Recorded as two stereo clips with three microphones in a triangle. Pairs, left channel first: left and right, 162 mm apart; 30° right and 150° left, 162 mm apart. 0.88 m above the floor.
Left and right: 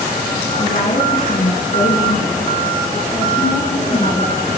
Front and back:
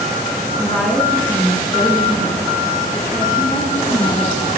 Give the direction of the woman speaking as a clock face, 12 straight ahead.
10 o'clock.